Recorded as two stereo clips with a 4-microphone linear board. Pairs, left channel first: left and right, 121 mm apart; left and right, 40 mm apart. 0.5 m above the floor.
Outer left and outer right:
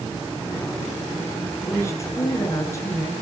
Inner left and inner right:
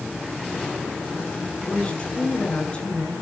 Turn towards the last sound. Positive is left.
turn(degrees=25)  # may be behind; listen again after turning